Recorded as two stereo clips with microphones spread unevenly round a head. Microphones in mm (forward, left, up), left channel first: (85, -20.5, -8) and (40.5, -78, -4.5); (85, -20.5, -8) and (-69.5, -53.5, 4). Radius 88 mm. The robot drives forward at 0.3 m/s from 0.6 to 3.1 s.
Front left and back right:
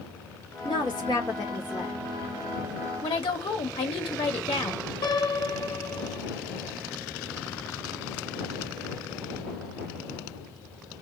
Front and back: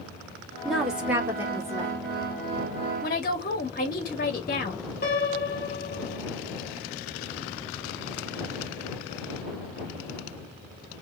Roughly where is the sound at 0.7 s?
Left.